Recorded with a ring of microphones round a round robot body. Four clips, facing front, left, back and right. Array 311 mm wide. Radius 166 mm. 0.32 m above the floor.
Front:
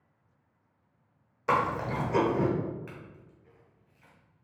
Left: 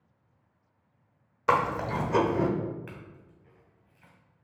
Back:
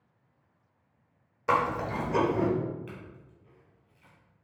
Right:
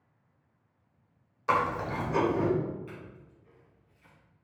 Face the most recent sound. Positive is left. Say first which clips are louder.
# right 1 dB, back 2 dB
turn(degrees=75)